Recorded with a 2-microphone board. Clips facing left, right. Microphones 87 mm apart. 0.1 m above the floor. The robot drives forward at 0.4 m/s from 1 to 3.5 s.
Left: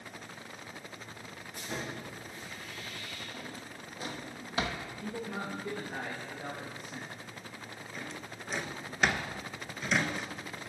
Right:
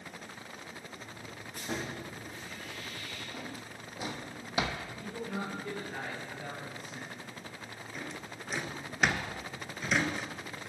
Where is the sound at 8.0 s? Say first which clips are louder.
Right 1 dB; 5° right (ahead or behind), 0.6 m.